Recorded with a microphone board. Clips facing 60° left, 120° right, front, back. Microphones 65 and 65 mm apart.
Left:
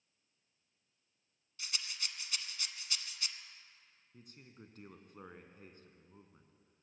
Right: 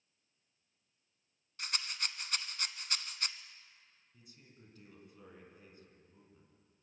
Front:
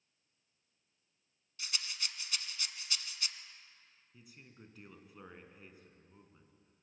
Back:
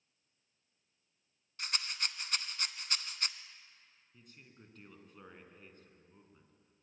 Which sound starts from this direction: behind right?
A rattle, at 1.6 s.